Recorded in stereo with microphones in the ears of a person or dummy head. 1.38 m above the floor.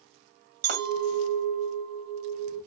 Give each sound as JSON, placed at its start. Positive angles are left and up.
{"t": 0.6, "sound": "a clink", "side_deg": -60, "distance_m": 2.5}